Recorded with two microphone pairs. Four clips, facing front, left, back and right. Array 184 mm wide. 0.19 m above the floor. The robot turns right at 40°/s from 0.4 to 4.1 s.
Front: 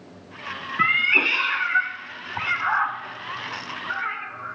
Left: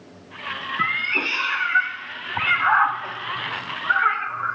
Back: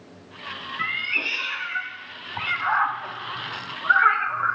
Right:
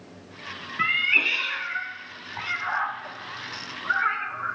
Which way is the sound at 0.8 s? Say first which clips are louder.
Even, front 9 dB; 15° left.